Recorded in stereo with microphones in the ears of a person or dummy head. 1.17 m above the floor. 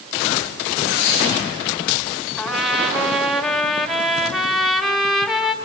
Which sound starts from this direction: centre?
A trumpet, at 2.4 s.